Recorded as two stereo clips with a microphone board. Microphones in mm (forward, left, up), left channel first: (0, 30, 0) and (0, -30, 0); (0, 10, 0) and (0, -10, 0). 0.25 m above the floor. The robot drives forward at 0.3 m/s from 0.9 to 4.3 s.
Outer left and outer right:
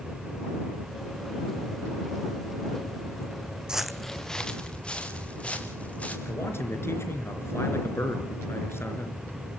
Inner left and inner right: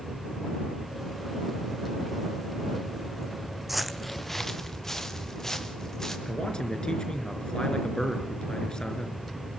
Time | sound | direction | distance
3.7 | footsteps | 10° right (ahead or behind) | 0.6 m
6.2 | a man speaking | 45° left (ahead or behind) | 3.5 m